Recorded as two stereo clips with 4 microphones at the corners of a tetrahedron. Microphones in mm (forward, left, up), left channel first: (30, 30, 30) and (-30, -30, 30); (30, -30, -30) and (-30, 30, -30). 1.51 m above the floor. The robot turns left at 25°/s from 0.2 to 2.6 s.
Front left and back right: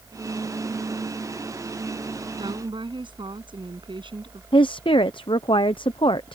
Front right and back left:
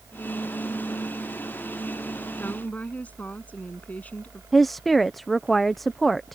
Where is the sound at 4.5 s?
45° left.